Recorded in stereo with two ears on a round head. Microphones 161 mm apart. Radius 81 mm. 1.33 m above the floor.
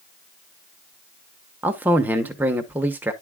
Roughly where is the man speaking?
Centre.